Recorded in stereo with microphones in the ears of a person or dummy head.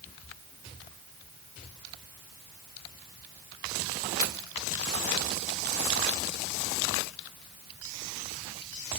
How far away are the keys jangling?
About 3 m.